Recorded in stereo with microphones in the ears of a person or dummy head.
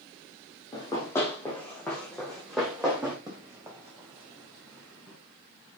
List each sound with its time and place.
0.7 s running footsteps: 25° left (ahead or behind), 3 m; by 3.2 s centre (ahead or behind), 3.5 m
3.3 s running footsteps: 15° right (ahead or behind), 3.5 m; by 5.2 s 5° left (ahead or behind), 5 m